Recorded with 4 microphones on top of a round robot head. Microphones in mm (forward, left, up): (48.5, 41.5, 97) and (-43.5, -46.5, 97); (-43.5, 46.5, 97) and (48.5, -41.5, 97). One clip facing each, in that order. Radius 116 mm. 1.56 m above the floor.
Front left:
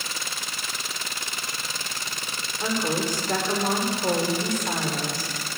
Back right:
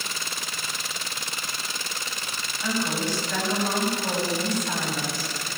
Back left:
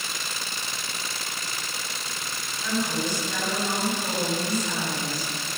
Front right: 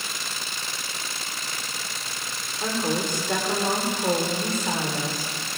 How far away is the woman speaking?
About 6.5 m.